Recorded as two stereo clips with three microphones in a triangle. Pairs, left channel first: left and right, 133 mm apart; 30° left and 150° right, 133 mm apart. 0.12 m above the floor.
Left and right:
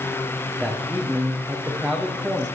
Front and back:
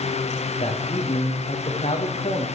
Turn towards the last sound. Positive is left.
turn(degrees=-10)